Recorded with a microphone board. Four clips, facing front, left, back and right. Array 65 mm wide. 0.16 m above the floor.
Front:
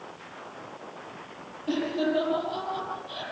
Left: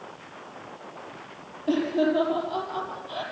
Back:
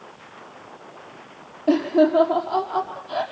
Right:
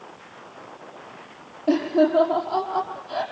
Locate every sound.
1.7 s laughter: 145° right, 5.5 m